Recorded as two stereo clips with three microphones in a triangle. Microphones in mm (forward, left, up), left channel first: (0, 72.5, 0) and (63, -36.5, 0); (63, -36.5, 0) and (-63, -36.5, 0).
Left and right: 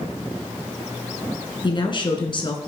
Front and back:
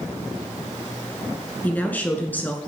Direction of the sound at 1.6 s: 75° left.